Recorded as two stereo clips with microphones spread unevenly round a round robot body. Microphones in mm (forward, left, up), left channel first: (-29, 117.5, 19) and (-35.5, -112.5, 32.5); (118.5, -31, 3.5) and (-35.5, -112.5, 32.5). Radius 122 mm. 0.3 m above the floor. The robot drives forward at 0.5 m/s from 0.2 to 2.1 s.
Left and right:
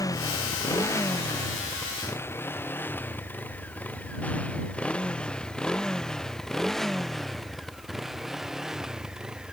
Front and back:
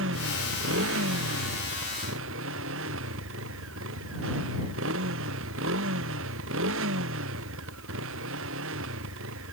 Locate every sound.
0.0 s a motorcycle: 165° left; by 9.5 s straight behind